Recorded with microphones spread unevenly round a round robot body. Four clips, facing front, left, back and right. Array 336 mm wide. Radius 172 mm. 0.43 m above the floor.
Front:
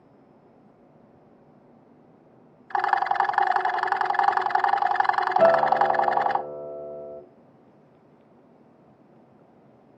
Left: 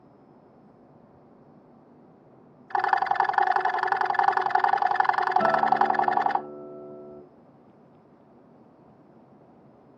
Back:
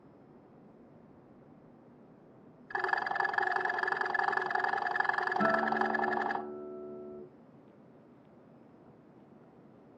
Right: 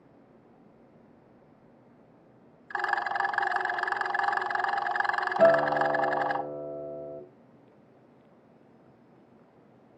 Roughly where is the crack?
No crack in this recording.